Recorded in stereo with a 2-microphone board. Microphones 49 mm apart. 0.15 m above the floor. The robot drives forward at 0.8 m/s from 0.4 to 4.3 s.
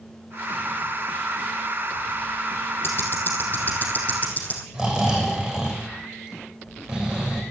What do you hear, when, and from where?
2.8 s ticking: 50° left (ahead or behind), 2.5 m; by 4.6 s 35° left (ahead or behind), 3 m
4.7 s snoring: 15° right (ahead or behind), 6 m